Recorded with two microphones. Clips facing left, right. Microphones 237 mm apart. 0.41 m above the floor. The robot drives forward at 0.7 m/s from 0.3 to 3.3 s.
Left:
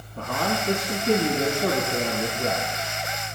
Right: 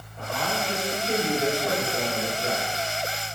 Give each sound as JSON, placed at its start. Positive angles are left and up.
{"t": 0.2, "sound": "a man speaking", "side_deg": 75, "distance_m": 4.0}